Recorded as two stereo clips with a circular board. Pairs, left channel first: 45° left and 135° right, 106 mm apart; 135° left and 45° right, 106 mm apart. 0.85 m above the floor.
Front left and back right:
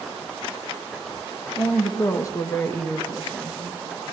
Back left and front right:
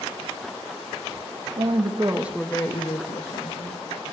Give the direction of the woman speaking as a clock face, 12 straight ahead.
1 o'clock.